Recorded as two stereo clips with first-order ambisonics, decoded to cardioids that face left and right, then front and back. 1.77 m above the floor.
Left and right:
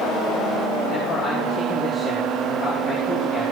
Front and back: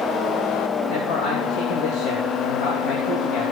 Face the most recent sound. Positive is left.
turn(degrees=15)